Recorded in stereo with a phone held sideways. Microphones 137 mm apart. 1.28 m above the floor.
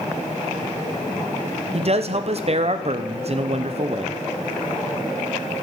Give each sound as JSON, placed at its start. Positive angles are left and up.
{"t": 1.7, "sound": "a man speaking", "side_deg": -50, "distance_m": 0.6}